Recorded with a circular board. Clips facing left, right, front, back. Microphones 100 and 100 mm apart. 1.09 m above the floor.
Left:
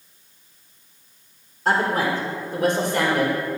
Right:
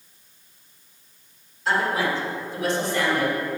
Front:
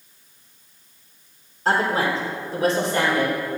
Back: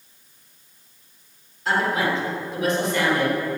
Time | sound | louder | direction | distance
1.6 | a woman speaking | left 2 dB, front 1 dB | 50° left | 3.5 m